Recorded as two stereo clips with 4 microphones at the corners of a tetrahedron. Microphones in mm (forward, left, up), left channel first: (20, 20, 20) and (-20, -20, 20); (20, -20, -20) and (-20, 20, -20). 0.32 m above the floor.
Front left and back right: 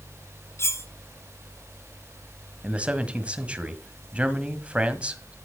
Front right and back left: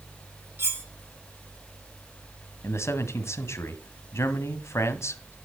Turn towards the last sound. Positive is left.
turn(degrees=-65)